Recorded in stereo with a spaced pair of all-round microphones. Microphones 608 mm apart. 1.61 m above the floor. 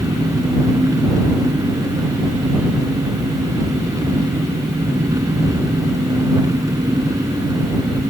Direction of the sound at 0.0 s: 5° right (ahead or behind).